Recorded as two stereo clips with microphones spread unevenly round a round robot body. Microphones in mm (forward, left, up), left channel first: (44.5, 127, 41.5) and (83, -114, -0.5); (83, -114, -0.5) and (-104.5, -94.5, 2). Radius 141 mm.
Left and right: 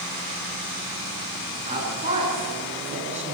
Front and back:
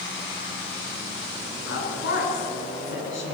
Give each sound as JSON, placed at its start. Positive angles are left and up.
{"t": 1.6, "sound": "a woman speaking", "azimuth_deg": -20, "distance_m": 8.5}